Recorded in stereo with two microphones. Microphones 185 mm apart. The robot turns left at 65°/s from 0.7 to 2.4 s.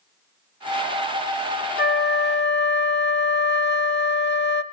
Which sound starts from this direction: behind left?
A flute, at 1.8 s.